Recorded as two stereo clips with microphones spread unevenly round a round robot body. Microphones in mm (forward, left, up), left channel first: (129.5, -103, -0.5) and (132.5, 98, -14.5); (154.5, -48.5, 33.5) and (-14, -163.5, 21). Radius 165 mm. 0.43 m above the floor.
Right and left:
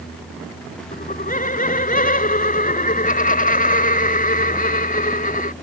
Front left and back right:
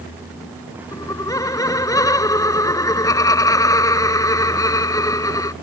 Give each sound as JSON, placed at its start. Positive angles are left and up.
{"t": 0.9, "sound": "laughter", "azimuth_deg": -40}